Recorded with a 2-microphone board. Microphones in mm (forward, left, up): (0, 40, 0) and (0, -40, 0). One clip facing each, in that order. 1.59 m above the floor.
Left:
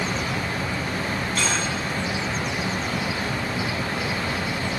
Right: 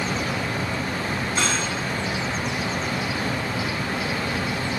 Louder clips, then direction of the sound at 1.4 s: Right 1 dB; 20° right (ahead or behind).